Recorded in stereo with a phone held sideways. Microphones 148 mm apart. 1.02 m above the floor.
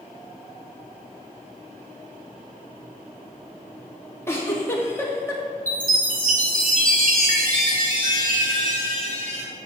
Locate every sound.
4.3 s a giggle: 15° left (ahead or behind), 2.0 m
5.7 s a chime: 65° right (ahead or behind), 2 m